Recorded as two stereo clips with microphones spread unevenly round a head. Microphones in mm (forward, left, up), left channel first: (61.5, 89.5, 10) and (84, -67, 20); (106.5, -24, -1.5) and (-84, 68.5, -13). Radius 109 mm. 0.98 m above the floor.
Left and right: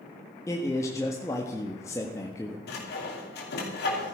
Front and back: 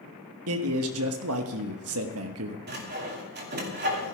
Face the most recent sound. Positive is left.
turn(degrees=115)